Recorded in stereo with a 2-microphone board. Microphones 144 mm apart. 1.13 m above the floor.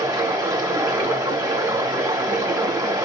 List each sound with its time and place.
0.0 s running water: 25° right (ahead or behind), 0.9 m